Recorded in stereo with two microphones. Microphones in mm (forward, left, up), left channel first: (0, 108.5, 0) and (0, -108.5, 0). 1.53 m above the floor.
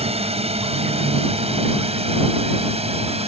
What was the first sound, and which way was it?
A drone, 25° right (ahead or behind).